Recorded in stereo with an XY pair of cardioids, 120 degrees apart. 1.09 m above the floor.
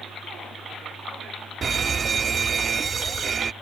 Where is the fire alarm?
35° right.